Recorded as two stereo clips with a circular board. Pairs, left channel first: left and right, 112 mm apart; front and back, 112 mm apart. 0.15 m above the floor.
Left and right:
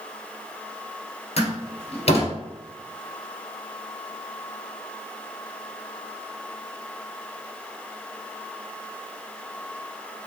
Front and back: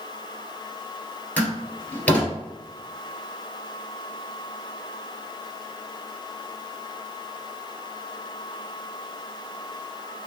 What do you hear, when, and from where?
1.4 s a door slam: 75° left, 2 m